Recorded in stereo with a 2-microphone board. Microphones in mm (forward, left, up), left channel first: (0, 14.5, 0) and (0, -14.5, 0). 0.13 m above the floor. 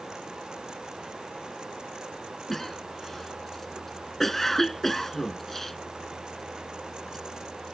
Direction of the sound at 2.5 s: 10° left (ahead or behind).